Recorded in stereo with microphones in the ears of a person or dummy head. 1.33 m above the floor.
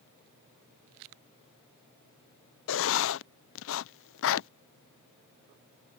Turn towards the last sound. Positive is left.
turn(degrees=60)  # may be behind; listen again after turning